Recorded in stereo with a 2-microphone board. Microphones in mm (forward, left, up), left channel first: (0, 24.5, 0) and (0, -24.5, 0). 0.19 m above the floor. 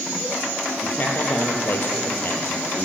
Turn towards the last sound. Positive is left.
turn(degrees=45)  # may be behind; listen again after turning